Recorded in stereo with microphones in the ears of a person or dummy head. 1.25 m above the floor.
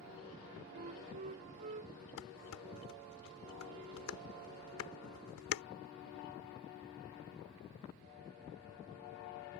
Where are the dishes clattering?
85° left.